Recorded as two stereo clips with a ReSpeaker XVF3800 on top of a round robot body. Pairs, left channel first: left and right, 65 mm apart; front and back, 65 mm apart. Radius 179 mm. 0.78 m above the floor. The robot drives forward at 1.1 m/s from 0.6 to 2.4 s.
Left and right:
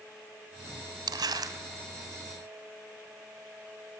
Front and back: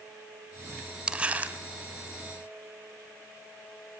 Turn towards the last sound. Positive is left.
turn(degrees=-135)